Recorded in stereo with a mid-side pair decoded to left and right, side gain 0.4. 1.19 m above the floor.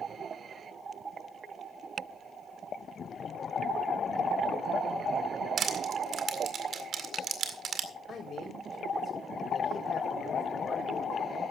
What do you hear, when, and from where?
5.6 s crushing: 60° right, 2.0 m
8.1 s a man speaking: 60° left, 5 m